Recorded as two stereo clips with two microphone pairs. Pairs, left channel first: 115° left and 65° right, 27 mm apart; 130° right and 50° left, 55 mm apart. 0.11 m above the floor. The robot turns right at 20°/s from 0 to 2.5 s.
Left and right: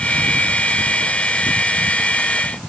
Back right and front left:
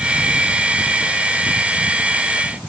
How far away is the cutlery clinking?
No cutlery clinking in this recording.